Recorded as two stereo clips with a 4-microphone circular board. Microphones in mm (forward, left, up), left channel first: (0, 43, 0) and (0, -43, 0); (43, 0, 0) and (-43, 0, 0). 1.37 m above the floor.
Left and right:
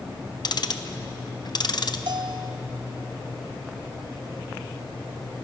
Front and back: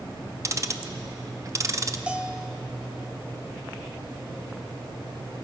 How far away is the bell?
About 0.6 m.